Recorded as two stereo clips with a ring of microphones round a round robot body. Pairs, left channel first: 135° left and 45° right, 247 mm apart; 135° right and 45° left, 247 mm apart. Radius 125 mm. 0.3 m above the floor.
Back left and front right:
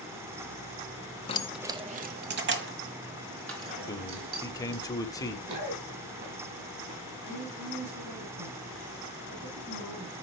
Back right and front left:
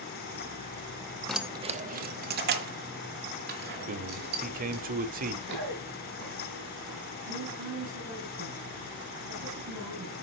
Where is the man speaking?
70° left, 1.1 m.